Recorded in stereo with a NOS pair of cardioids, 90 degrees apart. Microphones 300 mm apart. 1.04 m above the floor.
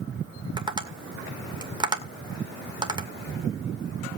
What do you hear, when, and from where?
0.6 s tapping: 15° right, 1.8 m